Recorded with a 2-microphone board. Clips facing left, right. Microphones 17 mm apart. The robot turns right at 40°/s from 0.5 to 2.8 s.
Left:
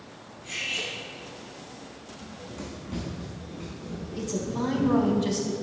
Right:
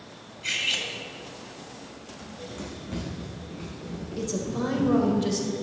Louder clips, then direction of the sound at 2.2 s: Right 2 dB; centre (ahead or behind).